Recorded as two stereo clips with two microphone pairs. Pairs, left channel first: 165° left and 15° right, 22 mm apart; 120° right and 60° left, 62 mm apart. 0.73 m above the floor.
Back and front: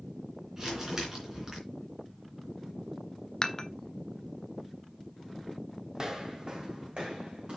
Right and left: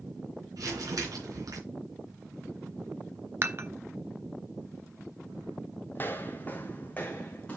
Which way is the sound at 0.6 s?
50° left.